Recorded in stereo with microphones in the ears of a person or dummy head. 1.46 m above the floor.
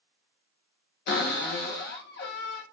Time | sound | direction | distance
1.1 | a cupboard door | 45° left (ahead or behind) | 0.7 m